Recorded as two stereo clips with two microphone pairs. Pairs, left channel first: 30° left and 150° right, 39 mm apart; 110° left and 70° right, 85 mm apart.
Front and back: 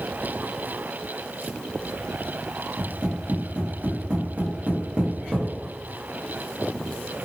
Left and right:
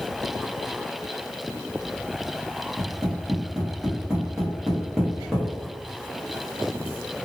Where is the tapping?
150° right, 1.1 m.